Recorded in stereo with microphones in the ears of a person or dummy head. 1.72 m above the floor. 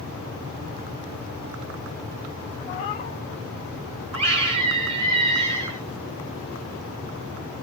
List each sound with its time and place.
2.7 s a cat meowing: 25° left (ahead or behind), 1.0 m
4.1 s a scream: 30° right (ahead or behind), 5.5 m